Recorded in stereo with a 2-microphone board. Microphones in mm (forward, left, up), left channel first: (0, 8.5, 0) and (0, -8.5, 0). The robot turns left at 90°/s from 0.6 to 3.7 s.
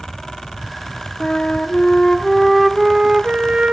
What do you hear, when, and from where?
1.2 s a flute: 115° left, 0.5 m; by 3.7 s 110° right, 0.5 m